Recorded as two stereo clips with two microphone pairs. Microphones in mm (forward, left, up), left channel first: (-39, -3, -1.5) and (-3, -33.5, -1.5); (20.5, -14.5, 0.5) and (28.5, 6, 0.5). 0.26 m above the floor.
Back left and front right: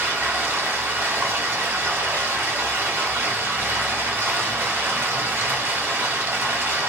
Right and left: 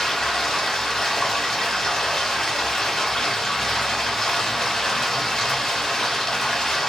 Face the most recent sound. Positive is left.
turn(degrees=-65)